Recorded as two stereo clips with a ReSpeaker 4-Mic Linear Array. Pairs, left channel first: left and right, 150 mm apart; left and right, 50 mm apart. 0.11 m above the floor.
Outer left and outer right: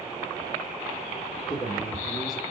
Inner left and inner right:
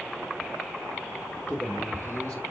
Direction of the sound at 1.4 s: 35° left (ahead or behind).